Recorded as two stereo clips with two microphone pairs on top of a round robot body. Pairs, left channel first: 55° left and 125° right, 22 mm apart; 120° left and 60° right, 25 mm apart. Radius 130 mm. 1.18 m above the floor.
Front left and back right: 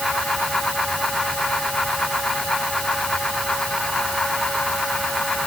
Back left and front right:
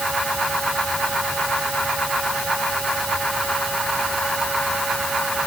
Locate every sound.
Only background noise.